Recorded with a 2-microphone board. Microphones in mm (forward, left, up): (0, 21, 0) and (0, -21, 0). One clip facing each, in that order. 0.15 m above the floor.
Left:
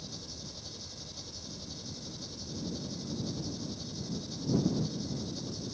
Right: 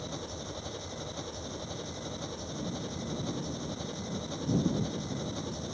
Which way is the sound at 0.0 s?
45° right (ahead or behind).